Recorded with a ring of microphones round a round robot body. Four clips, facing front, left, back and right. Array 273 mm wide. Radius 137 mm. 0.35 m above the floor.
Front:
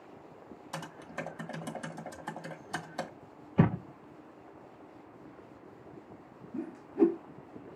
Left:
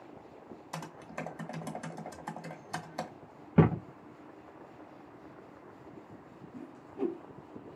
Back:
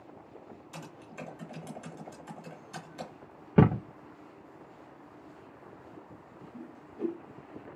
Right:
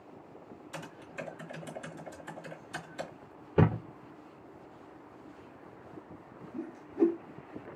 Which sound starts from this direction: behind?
A thud, at 3.6 s.